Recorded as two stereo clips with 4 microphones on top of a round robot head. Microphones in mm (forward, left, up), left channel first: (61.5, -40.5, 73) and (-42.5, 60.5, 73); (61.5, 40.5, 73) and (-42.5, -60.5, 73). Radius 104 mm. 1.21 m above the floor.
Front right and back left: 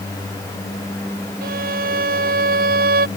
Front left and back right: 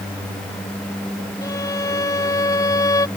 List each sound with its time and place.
1.4 s a violin: 115° left